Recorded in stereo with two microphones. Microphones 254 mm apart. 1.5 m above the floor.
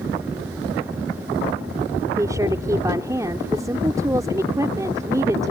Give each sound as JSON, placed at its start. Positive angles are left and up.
{"t": 2.2, "sound": "a woman speaking", "side_deg": -15}